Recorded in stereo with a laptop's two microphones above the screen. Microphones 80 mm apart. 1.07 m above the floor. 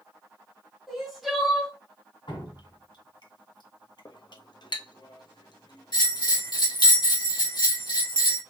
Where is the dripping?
70° left (ahead or behind), 1.9 m.